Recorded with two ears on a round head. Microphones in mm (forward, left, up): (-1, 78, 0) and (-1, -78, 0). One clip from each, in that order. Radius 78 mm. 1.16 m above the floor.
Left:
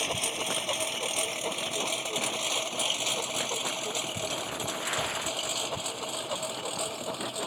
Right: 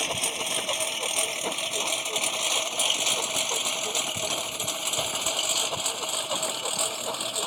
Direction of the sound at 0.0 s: 10° right (ahead or behind).